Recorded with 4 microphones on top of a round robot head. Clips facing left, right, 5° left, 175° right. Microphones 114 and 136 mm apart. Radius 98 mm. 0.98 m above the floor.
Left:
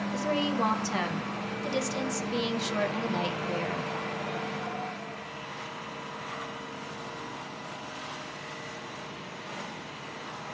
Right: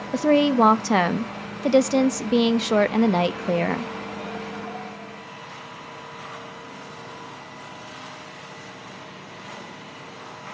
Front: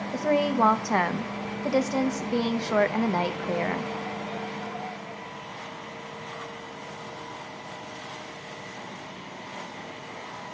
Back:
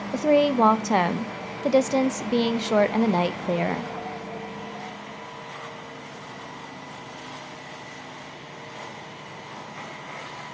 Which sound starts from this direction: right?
A woman speaking, at 0.1 s.